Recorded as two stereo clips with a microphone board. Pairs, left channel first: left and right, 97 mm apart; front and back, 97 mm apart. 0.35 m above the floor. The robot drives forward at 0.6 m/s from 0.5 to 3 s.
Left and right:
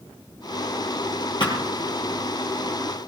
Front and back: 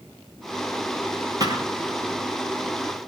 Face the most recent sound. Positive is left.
turn(degrees=135)